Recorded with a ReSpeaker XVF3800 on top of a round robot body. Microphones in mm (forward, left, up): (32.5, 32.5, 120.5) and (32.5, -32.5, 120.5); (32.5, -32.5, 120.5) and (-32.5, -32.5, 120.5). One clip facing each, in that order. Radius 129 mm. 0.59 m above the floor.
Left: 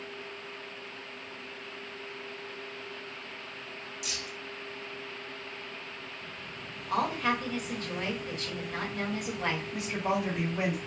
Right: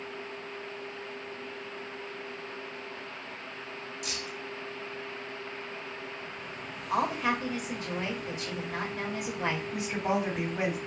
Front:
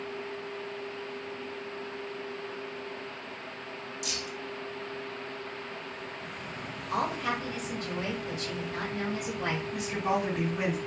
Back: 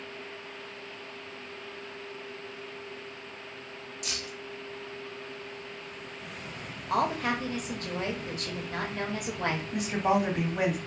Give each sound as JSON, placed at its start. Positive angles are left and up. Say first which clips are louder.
{"t": 4.0, "sound": "keys jangling", "louder": "right 2 dB, even", "azimuth_deg": -135, "distance_m": 1.2}
{"t": 6.9, "sound": "a woman speaking", "louder": "right 1 dB, back 3 dB", "azimuth_deg": -165, "distance_m": 1.3}
{"t": 9.7, "sound": "a woman speaking", "louder": "right 1 dB, back 5 dB", "azimuth_deg": -150, "distance_m": 1.7}